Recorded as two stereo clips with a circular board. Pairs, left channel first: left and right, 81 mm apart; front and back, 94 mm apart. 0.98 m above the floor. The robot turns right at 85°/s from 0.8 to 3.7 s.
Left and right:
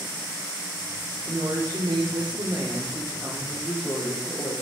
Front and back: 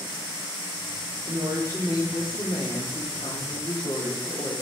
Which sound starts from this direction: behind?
A woman speaking, at 1.2 s.